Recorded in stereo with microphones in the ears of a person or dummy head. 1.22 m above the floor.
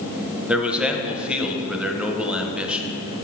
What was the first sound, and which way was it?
A man speaking, 5° right (ahead or behind).